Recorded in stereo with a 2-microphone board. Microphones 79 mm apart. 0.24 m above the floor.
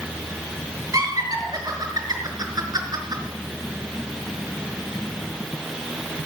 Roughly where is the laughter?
Right.